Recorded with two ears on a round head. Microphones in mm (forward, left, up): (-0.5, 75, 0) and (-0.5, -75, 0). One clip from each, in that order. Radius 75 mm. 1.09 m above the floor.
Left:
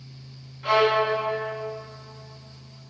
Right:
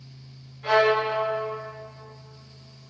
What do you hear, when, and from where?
0.6 s a violin: 15° left (ahead or behind), 2 m